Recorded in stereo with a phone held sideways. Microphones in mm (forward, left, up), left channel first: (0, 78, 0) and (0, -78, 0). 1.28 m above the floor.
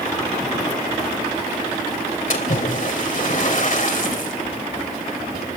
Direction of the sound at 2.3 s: 60° left (ahead or behind).